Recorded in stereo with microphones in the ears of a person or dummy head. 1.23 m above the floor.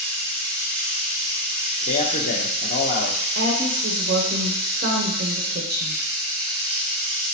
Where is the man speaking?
35° left (ahead or behind), 0.9 m.